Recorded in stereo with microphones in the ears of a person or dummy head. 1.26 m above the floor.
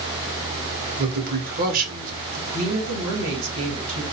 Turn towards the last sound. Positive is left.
turn(degrees=-80)